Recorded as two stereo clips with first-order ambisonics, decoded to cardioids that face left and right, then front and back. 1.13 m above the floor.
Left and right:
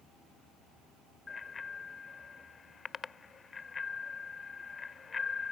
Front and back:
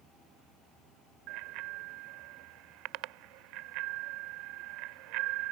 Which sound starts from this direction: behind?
A bicycle bell, at 1.3 s.